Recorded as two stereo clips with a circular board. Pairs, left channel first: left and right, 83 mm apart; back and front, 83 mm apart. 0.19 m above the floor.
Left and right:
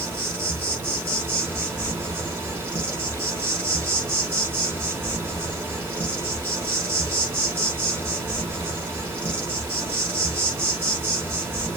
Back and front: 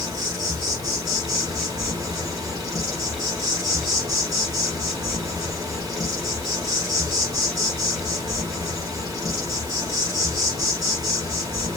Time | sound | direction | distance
0.0 | an insect | 30° right | 0.9 m